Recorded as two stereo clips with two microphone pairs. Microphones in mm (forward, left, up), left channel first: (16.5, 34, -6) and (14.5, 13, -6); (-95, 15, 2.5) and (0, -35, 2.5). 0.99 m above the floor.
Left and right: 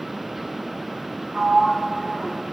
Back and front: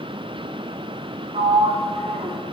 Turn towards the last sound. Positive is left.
turn(degrees=-30)